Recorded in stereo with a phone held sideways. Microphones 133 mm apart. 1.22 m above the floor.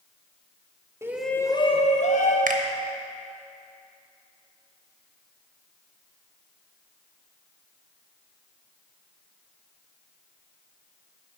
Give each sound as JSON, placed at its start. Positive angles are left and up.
{"t": 1.0, "sound": "a shout", "side_deg": -20, "distance_m": 0.7}
{"t": 2.5, "sound": "a finger snap", "side_deg": -80, "distance_m": 0.8}